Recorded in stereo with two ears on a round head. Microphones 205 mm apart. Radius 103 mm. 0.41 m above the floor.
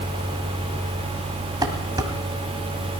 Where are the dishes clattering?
20° right (ahead or behind), 1.6 m.